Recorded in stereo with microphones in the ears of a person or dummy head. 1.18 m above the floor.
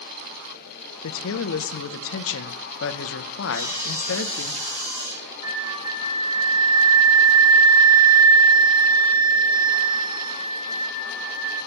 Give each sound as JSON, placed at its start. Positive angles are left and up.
{"t": 1.0, "sound": "a man speaking", "side_deg": 70, "distance_m": 0.5}
{"t": 3.5, "sound": "sawing", "side_deg": -10, "distance_m": 1.3}
{"t": 5.4, "sound": "a flute", "side_deg": -25, "distance_m": 0.9}